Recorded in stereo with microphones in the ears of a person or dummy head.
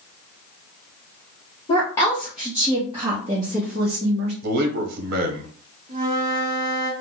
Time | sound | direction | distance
1.7 | a woman speaking | 20° left (ahead or behind) | 0.8 m
4.4 | a man speaking | 60° right (ahead or behind) | 0.8 m
5.9 | a flute | 30° right (ahead or behind) | 1.3 m